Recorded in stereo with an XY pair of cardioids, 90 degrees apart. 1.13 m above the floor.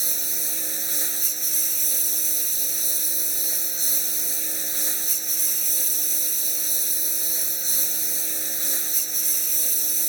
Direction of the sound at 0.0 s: 20° right.